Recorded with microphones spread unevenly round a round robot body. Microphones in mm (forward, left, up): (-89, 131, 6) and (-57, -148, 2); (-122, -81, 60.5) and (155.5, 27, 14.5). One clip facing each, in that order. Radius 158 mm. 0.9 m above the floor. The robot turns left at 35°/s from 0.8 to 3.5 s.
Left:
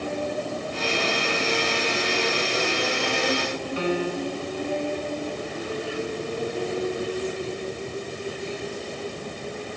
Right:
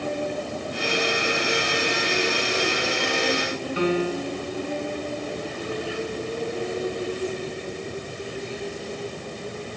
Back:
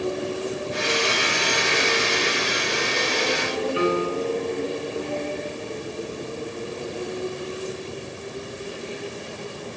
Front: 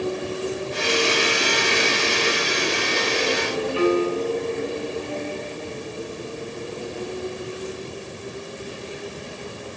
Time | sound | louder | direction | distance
3.8 | a piano | right 3 dB, front 4 dB | 85° right | 2 m